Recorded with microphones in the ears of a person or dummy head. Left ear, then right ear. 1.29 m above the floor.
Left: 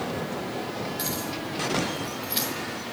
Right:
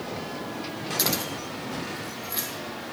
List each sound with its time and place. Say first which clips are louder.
1.0 s keys jangling: right 3 dB; 30° right (ahead or behind), 0.9 m; by 2.5 s 25° left (ahead or behind), 0.9 m